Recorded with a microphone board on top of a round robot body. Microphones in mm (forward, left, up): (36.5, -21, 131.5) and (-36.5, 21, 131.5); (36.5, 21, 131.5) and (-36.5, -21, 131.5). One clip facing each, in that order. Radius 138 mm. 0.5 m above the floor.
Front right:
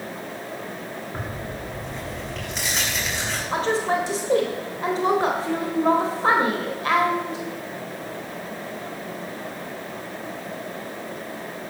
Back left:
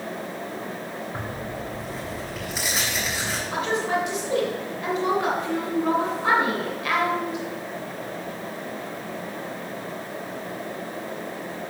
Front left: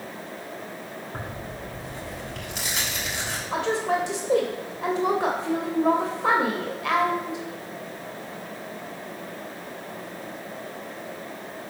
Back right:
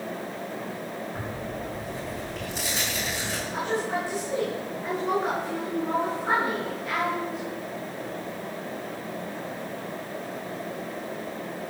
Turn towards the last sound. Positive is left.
turn(degrees=30)